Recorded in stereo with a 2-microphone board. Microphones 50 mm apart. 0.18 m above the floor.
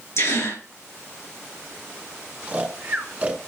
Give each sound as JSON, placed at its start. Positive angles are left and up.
{"t": 0.2, "sound": "a gasp", "side_deg": 65, "distance_m": 3.0}
{"t": 2.5, "sound": "snoring", "side_deg": -25, "distance_m": 1.2}